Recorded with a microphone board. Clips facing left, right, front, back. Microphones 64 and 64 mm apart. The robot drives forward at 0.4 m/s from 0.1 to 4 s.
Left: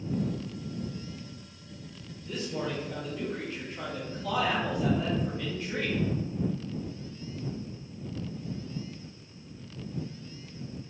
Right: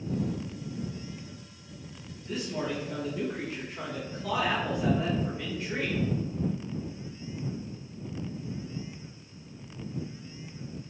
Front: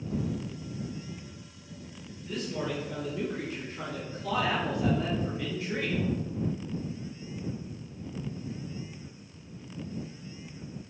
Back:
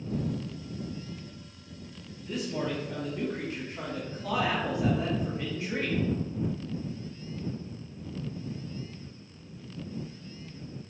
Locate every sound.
2.3 s a man speaking: 105° right, 1.0 m; by 6.0 s 155° right, 1.3 m